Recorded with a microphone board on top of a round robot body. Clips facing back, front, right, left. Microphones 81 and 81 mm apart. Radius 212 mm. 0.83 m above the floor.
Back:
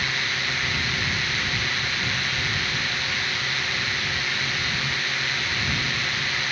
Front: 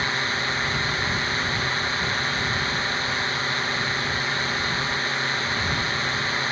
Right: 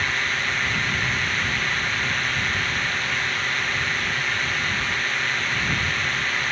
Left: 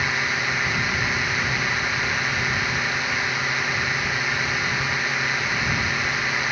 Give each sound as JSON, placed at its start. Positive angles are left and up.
{"t": 0.0, "sound": "a drone", "azimuth_deg": 20}